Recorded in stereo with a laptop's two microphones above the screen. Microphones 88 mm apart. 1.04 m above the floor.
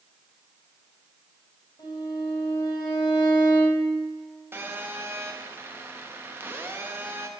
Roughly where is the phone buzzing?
Right.